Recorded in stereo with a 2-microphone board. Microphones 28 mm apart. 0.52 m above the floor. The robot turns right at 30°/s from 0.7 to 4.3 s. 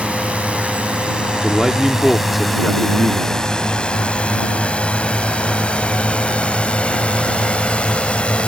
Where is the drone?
55° right (ahead or behind); by 8.5 s 45° left (ahead or behind).